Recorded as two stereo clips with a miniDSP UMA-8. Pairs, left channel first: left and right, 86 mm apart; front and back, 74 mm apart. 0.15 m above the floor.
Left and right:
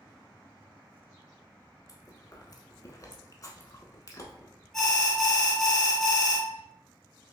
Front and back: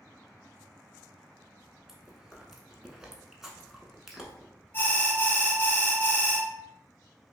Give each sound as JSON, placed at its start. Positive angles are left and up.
{"t": 1.9, "sound": "chewing", "azimuth_deg": 100, "distance_m": 0.8}
{"t": 4.7, "sound": "an alarm", "azimuth_deg": 10, "distance_m": 1.0}